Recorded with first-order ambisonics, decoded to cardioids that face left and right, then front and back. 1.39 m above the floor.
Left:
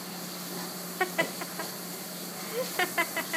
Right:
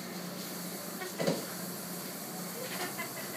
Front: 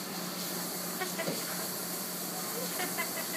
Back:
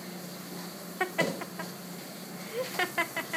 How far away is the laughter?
About 1.0 m.